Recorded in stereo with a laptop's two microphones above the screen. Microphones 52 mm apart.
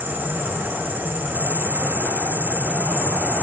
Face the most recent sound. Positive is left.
turn(degrees=-40)  # may be behind; listen again after turning